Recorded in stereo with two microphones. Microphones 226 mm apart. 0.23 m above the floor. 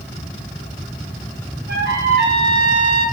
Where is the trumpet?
50° right (ahead or behind), 1.5 m.